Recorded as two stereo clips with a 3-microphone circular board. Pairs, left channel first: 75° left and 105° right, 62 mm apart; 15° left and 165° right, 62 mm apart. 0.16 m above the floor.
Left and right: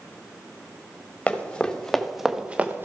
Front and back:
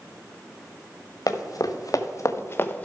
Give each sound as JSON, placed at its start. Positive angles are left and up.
{"t": 1.3, "sound": "running footsteps", "azimuth_deg": 5, "distance_m": 1.8}